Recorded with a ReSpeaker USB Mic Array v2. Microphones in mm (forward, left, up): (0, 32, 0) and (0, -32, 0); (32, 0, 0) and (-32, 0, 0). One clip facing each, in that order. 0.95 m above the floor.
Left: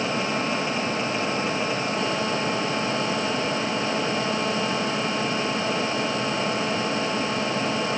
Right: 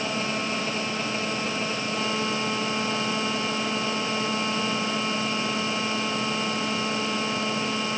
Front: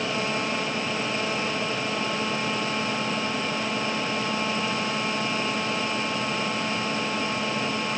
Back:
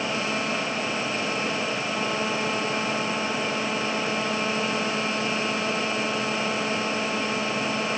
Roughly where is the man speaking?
No man speaking in this recording.